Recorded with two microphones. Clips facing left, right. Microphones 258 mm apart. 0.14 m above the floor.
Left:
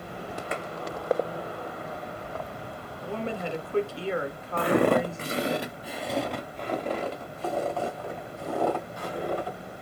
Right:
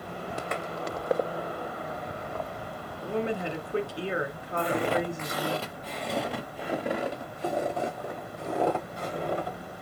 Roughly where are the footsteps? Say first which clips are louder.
Left 5 dB; left.